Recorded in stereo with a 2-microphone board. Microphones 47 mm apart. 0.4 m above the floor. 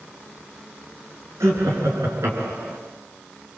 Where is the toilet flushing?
No toilet flushing in this recording.